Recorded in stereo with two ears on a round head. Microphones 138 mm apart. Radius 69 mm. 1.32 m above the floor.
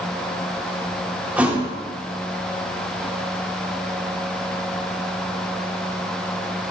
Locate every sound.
1.4 s a thud: 10° right (ahead or behind), 1.7 m